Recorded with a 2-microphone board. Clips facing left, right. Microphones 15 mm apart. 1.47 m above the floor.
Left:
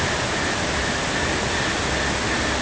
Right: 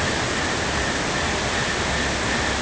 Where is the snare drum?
I don't hear a snare drum.